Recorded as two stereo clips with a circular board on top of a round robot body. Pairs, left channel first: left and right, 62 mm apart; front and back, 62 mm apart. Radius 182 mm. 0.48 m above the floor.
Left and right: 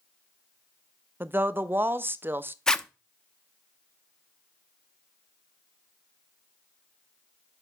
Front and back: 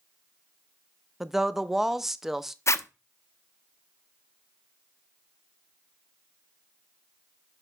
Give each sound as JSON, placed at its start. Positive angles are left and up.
{"t": 1.2, "sound": "a woman speaking", "azimuth_deg": -100, "distance_m": 0.8}
{"t": 2.7, "sound": "a zipper", "azimuth_deg": 15, "distance_m": 0.9}